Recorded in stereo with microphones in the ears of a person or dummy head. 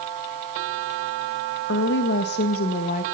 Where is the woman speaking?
70° left (ahead or behind), 1.7 m; by 3.0 s 45° left (ahead or behind), 1.5 m.